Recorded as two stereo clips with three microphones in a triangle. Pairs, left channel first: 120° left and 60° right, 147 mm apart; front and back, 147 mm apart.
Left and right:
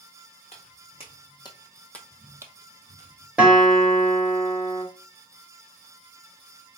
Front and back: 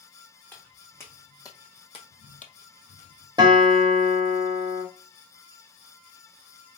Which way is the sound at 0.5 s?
80° left.